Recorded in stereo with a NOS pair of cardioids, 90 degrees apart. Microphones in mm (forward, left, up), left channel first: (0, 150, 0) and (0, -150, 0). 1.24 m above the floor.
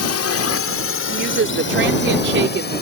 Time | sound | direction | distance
0.0 | a drone | 60° left | ?
1.1 | a woman speaking | 40° right | ?